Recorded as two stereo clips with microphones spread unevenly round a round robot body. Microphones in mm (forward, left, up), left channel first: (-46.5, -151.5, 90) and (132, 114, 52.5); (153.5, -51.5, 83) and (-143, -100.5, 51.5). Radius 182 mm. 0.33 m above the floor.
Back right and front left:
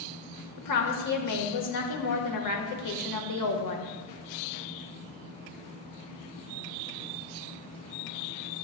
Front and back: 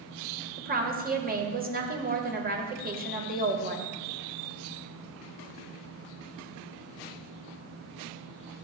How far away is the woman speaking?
About 1.3 m.